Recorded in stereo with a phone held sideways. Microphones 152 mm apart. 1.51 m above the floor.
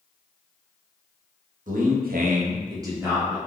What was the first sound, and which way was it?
A man speaking, 65° right (ahead or behind).